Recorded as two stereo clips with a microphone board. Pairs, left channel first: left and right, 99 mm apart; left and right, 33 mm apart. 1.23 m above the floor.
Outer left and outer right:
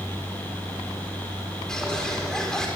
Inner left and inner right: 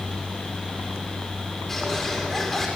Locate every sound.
1.7 s a bird: 5° left (ahead or behind), 4 m